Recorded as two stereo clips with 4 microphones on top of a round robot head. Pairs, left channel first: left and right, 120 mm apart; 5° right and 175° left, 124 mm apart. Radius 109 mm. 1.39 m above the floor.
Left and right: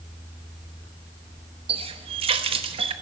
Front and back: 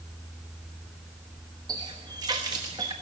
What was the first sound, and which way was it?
A running tap, 120° right.